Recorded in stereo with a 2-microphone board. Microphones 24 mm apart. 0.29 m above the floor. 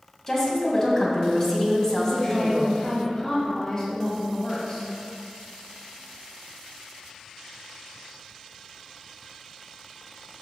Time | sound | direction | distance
0.3 | a woman speaking | 25° left (ahead or behind) | 2.5 m
2.1 | a woman speaking | 30° left (ahead or behind) | 1.9 m